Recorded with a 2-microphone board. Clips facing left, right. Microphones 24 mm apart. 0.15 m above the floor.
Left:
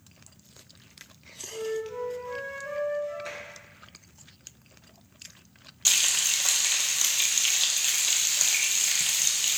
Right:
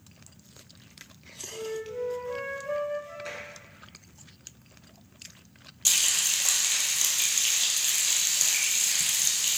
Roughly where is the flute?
Left.